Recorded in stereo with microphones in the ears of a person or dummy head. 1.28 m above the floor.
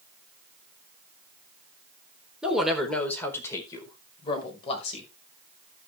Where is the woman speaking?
Centre (ahead or behind), 3.5 m; by 5.1 s 40° left (ahead or behind), 5.5 m.